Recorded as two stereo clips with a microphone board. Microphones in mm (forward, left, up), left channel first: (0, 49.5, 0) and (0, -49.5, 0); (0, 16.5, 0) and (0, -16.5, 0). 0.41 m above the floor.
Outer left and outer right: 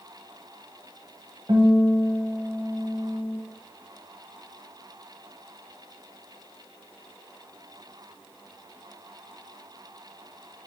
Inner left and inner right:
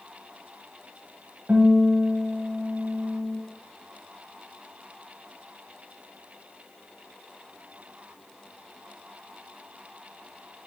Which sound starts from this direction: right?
A guitar, at 1.5 s.